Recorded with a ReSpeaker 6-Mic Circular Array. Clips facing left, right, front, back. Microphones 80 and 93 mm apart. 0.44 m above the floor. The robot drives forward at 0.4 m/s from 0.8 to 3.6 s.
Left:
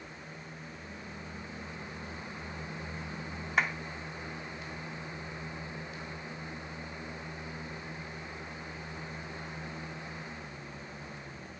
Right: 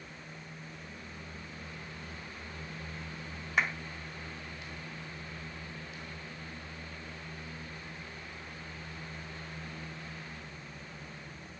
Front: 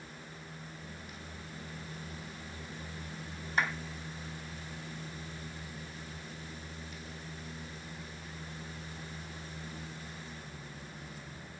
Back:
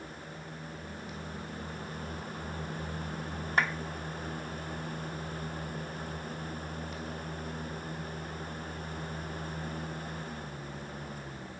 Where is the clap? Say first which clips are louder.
Left 1 dB, back 2 dB; straight behind, 1.9 m.